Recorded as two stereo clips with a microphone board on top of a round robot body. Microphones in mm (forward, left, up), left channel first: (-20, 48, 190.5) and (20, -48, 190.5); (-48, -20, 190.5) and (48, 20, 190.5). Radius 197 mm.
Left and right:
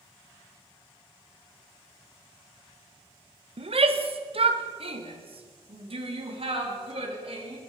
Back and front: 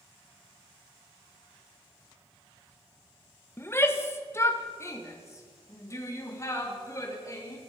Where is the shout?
90° right, 1.9 m; by 7.6 s 100° right, 4.5 m.